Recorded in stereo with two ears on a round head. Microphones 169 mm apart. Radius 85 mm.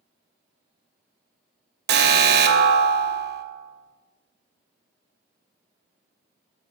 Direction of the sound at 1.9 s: 55° right (ahead or behind).